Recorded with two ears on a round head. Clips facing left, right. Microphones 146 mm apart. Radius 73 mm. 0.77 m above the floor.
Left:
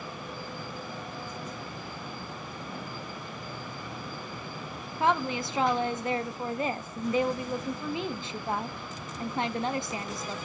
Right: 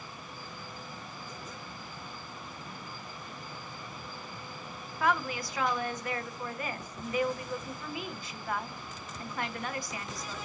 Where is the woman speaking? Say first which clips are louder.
Left 3 dB; 20° left (ahead or behind), 0.7 m.